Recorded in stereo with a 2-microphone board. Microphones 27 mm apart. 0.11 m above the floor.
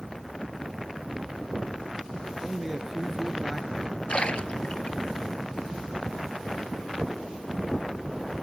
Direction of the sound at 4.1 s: 50° left (ahead or behind).